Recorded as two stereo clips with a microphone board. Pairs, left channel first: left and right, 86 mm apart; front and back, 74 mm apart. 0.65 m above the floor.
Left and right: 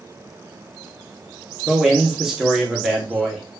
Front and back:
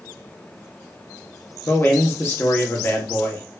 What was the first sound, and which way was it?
A man speaking, 10° right.